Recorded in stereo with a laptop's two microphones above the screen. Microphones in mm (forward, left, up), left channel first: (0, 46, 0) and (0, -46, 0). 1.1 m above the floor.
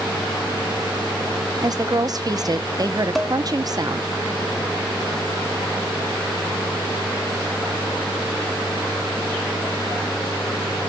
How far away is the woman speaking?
About 0.7 m.